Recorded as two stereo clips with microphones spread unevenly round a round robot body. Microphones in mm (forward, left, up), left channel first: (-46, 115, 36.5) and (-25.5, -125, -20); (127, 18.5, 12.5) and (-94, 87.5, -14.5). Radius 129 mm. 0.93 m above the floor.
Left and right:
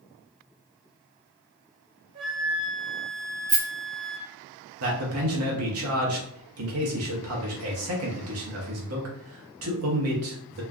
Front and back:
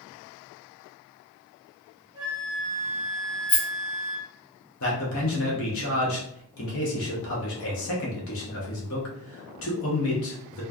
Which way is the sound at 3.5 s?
55° right.